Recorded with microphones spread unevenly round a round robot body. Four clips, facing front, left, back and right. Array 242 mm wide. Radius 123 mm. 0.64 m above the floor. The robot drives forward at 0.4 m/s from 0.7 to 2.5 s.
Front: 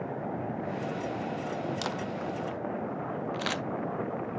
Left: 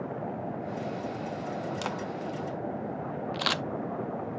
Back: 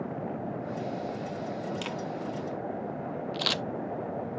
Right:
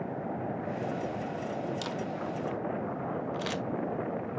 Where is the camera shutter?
50° left, 0.5 m; by 3.6 s 100° left, 0.5 m.